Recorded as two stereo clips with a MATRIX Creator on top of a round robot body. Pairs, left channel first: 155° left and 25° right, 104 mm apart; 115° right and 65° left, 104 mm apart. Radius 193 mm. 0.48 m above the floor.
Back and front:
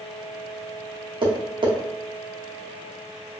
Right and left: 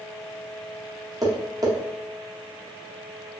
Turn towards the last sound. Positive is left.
turn(degrees=15)